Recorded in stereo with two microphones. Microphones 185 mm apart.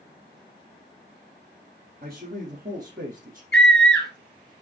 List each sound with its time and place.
2.0 s a man speaking: 55° right (ahead or behind), 3.5 m; by 3.4 s 50° right (ahead or behind), 4 m
3.5 s a scream: centre (ahead or behind), 1.5 m